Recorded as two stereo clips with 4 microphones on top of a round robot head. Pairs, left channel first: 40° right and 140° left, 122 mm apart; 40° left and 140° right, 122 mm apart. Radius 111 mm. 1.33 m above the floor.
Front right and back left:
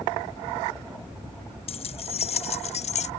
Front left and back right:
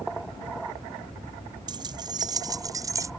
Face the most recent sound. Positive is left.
turn(degrees=-75)